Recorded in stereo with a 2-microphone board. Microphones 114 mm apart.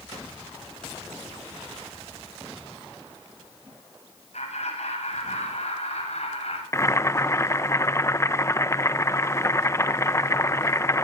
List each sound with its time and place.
4.3 s laughter: 75° left (ahead or behind), 8.5 m; by 6.6 s 65° left (ahead or behind), 7.5 m
6.7 s boiling: 25° left (ahead or behind), 0.7 m